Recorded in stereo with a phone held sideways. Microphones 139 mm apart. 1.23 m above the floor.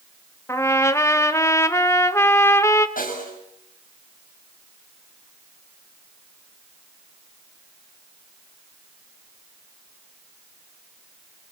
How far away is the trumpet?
About 1.4 m.